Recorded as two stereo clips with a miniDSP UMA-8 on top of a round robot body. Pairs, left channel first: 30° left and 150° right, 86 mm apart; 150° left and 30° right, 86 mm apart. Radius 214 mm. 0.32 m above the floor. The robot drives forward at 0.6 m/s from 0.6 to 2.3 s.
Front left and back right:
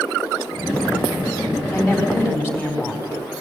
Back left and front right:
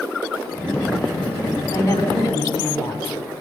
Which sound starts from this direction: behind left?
A woman speaking, at 1.7 s.